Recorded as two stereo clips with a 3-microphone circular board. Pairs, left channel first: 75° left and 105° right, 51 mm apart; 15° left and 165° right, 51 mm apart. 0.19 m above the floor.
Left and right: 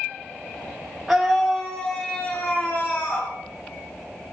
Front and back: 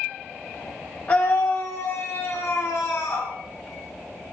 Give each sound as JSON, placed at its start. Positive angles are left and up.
{"t": 1.1, "sound": "a scream", "azimuth_deg": -25, "distance_m": 1.3}